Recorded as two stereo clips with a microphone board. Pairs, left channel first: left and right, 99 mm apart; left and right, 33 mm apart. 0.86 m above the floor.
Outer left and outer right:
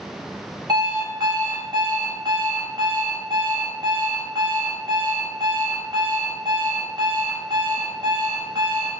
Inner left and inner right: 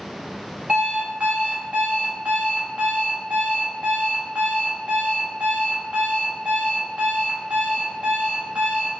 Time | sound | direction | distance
0.7 | an alarm clock | 40° right (ahead or behind) | 1.4 m